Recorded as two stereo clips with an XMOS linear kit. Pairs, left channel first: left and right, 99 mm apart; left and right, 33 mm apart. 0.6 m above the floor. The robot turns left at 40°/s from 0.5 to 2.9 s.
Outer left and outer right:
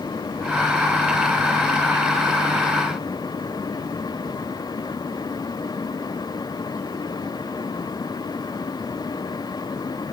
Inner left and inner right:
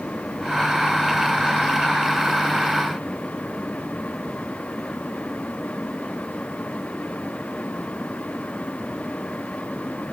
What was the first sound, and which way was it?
Only background noise.